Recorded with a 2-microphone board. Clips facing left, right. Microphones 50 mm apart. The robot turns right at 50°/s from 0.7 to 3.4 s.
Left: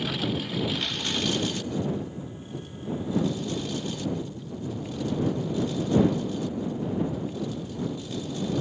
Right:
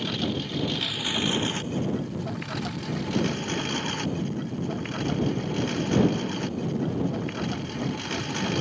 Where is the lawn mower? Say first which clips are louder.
Even; 5° left (ahead or behind); by 8.6 s 60° right (ahead or behind).